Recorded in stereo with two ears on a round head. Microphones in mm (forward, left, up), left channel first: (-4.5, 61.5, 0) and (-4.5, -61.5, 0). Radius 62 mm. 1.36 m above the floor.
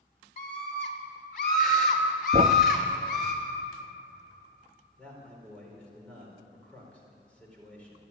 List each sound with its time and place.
0.4 s a scream: 60° left (ahead or behind), 4 m; by 3.3 s 80° left, 6 m
2.3 s a thud: 40° right (ahead or behind), 0.8 m
5.0 s a man speaking: 10° left (ahead or behind), 4.5 m